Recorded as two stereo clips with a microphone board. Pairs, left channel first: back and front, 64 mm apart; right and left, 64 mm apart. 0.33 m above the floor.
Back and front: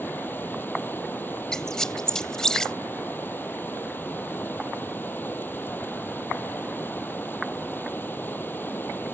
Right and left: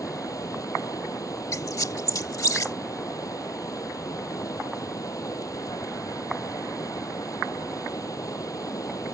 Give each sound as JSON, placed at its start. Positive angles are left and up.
{"t": 0.0, "sound": "running water", "azimuth_deg": -120}
{"t": 1.5, "sound": "a squeak", "azimuth_deg": -100}